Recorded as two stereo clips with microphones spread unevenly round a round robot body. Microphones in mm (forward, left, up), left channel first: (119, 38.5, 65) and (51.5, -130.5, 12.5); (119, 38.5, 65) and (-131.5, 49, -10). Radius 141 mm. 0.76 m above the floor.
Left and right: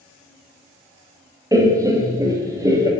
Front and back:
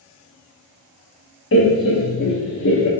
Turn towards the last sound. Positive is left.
turn(degrees=-50)